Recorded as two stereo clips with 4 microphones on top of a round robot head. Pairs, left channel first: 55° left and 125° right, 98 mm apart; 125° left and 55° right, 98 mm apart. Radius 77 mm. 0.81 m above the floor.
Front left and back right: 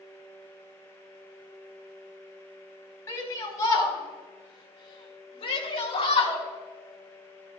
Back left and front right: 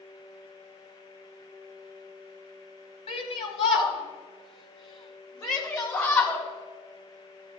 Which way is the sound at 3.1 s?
115° left.